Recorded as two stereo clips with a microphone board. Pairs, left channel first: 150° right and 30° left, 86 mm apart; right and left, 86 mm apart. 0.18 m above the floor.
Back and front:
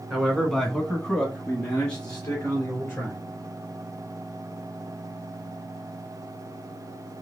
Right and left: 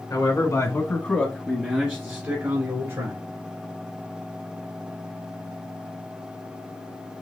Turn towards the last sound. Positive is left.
turn(degrees=130)